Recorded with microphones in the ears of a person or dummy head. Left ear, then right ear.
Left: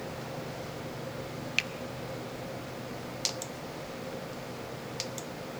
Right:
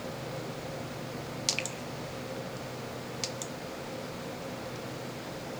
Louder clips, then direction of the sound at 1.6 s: Left 5 dB; 35° left (ahead or behind).